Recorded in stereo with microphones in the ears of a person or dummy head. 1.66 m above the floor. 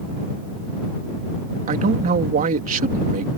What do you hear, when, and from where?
1.7 s a man speaking: 40° right (ahead or behind)